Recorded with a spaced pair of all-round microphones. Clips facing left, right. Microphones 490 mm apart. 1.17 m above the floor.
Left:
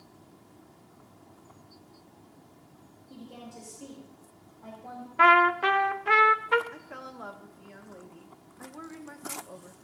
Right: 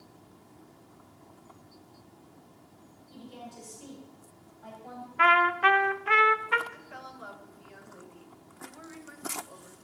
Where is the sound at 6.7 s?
70° left (ahead or behind), 1.2 m.